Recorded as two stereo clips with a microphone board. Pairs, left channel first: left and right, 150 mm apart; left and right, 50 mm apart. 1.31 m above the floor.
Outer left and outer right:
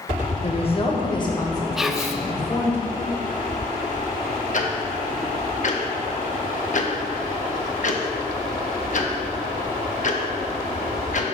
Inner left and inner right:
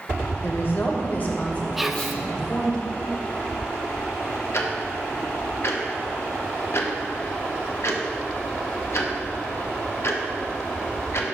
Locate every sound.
0.4 s a woman speaking: 45° left (ahead or behind), 1.1 m; by 2.8 s 15° left (ahead or behind), 2 m
1.8 s whispering: 5° right (ahead or behind), 0.6 m
4.5 s ticking: 55° left (ahead or behind), 0.9 m